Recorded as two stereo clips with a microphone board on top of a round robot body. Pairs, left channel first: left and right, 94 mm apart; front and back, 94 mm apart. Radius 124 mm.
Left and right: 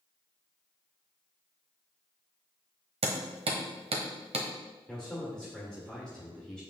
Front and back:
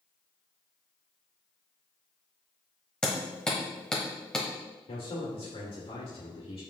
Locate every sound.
3.0 s hammering: 80° right, 1.1 m
4.9 s a man speaking: 10° left, 2.5 m